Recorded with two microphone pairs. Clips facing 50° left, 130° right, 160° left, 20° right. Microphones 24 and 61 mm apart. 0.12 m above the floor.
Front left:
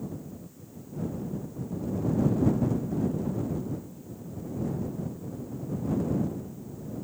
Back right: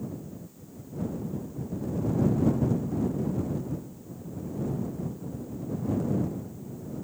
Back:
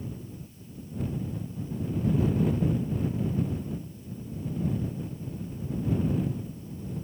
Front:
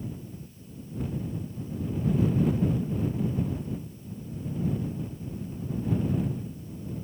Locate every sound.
Only background noise.